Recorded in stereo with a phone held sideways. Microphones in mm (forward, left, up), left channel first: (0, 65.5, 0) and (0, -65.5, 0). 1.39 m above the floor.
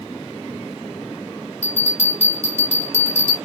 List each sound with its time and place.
1.6 s a bell: 60° left (ahead or behind), 1.8 m